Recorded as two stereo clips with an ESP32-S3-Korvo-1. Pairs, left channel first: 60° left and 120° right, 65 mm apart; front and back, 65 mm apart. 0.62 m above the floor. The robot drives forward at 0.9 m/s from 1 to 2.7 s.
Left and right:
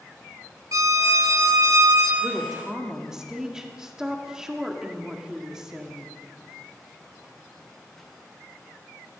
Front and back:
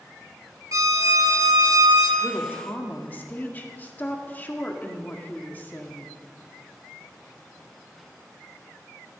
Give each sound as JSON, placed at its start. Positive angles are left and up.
{"t": 0.7, "sound": "a violin", "azimuth_deg": -150, "distance_m": 1.4}
{"t": 2.2, "sound": "a woman speaking", "azimuth_deg": -30, "distance_m": 1.7}